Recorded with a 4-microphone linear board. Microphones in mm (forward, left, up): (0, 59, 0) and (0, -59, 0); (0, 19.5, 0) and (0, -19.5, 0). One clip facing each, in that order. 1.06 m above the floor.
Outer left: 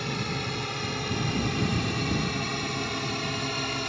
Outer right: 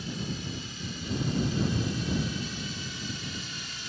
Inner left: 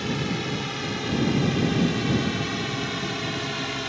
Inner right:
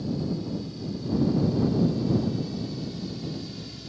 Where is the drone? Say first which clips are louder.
Outer left 4 dB, inner left 3 dB; 70° left (ahead or behind); by 3.9 s 65° left (ahead or behind).